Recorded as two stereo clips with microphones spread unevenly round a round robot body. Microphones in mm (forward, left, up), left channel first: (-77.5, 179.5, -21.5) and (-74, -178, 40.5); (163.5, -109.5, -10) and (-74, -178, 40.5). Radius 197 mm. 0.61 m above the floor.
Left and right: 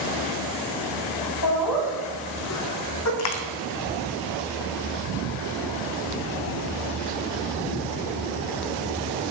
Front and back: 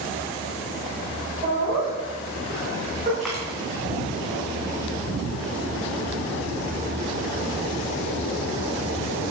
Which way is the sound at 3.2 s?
110° left.